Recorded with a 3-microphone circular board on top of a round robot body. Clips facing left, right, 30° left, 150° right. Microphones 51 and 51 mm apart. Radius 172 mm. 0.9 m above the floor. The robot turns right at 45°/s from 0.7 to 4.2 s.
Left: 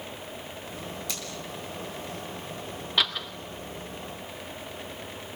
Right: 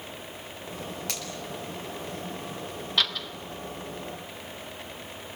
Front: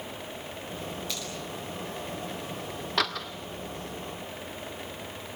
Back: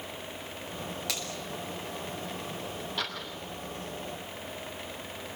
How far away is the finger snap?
About 9 m.